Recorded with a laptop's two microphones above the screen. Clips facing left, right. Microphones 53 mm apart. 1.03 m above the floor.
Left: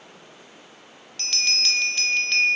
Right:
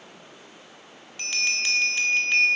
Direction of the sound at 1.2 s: 20° right (ahead or behind).